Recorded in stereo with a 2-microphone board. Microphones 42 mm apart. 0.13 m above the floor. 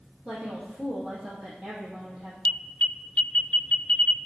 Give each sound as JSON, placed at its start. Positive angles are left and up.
{"t": 0.2, "sound": "a woman speaking", "side_deg": -15, "distance_m": 3.0}
{"t": 2.5, "sound": "an alarm", "side_deg": 30, "distance_m": 1.0}